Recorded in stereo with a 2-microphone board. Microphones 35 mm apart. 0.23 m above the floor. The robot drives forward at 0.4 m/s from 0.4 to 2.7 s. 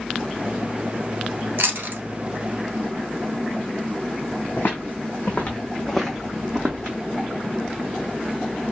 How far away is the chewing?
About 0.9 m.